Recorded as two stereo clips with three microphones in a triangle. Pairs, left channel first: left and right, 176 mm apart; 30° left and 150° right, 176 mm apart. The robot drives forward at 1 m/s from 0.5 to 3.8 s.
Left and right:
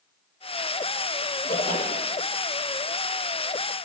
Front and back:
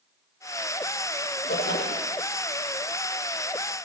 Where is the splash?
40° left, 6 m; by 2.1 s 45° left, 5.5 m.